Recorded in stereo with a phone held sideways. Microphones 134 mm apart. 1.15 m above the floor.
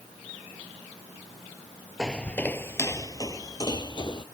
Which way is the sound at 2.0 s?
5° left (ahead or behind).